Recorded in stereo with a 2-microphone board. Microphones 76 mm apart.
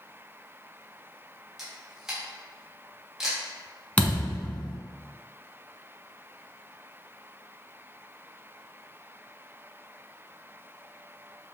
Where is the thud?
20° left (ahead or behind), 0.9 m.